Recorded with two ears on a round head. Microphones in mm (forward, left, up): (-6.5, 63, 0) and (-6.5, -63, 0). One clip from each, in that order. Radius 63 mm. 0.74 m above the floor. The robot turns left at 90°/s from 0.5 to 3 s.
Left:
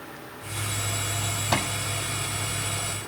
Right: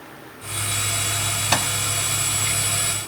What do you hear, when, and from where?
1.5 s a microwave: 60° right (ahead or behind); by 1.7 s 45° right (ahead or behind)